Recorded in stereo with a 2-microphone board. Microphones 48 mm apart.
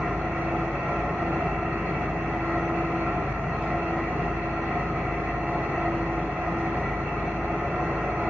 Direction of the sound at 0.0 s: 35° right (ahead or behind).